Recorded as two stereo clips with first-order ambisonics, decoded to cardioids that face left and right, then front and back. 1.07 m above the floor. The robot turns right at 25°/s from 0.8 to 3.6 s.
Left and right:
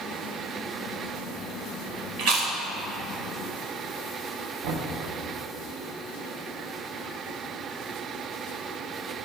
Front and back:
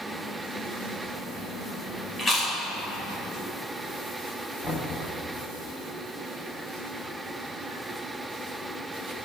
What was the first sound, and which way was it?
Chewing, 75° right.